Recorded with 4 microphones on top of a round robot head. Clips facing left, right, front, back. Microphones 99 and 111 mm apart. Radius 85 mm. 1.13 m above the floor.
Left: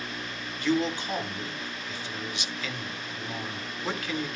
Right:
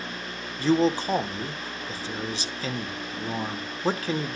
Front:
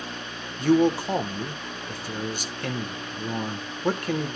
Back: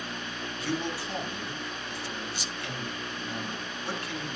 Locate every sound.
0.6 s a man speaking: 35° right, 1.1 m